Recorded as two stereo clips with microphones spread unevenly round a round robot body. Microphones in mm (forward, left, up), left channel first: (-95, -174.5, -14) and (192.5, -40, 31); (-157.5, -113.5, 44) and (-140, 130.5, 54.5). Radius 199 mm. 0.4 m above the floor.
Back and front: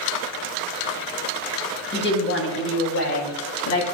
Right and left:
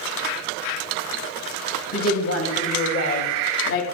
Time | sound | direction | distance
1.9 | a woman speaking | 105° right | 2.5 m